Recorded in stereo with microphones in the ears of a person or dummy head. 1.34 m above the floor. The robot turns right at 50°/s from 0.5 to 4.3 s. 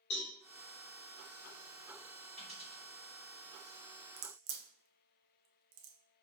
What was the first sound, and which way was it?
A cowbell, 65° left (ahead or behind).